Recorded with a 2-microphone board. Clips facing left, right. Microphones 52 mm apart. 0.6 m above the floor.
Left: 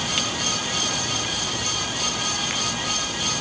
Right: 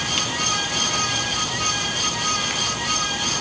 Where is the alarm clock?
No alarm clock in this recording.